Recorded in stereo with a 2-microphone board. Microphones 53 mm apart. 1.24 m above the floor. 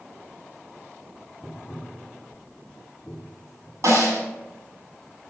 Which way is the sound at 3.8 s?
65° right (ahead or behind).